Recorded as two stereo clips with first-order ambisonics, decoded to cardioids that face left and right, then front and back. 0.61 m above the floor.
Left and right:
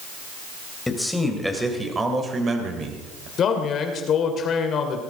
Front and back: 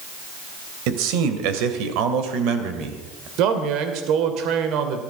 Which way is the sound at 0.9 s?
175° left.